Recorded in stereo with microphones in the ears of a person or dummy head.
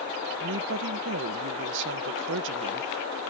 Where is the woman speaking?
70° right (ahead or behind).